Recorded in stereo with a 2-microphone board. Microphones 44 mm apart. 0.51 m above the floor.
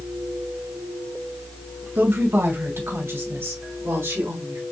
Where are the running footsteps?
I don't hear running footsteps.